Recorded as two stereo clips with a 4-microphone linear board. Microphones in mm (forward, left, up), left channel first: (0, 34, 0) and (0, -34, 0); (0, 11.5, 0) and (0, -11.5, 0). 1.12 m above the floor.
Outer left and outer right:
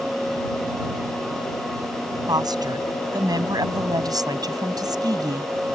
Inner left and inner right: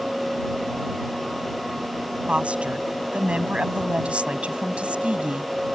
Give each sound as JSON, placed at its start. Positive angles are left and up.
{"t": 2.3, "sound": "a woman speaking", "side_deg": -75}